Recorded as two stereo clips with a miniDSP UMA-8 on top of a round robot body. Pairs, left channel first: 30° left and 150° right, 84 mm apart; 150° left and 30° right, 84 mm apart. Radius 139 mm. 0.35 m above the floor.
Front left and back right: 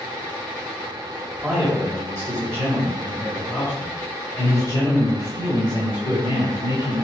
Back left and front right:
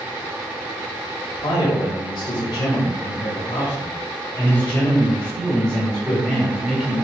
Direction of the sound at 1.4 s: 125° left.